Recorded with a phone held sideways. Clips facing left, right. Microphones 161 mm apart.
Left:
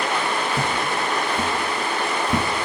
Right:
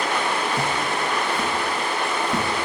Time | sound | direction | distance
0.5 | footsteps | 45° left (ahead or behind) | 2.0 m